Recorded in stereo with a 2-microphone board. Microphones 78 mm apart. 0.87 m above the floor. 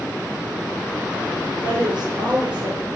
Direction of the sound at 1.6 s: 70° right (ahead or behind).